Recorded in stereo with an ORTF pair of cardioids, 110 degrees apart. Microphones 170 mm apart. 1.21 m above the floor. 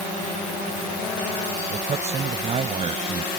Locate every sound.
1.7 s a man speaking: 40° right; by 3.3 s 35° right